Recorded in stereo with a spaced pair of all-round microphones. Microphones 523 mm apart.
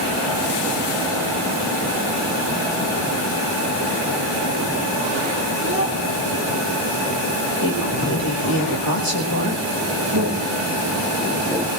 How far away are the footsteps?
About 2.5 m.